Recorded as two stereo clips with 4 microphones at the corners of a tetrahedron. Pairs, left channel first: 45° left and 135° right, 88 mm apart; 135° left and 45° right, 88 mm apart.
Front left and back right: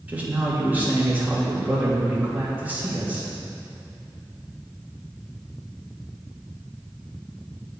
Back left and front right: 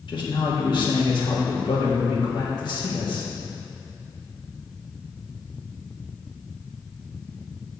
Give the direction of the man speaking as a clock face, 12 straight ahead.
7 o'clock.